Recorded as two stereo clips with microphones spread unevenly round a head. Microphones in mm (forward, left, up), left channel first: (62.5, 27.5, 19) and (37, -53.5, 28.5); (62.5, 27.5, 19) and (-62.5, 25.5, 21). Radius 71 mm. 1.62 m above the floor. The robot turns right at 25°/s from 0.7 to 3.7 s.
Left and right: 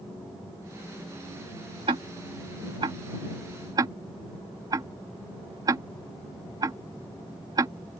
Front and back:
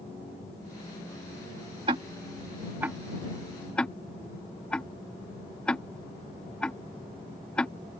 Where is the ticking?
130° right; by 7.7 s 80° right.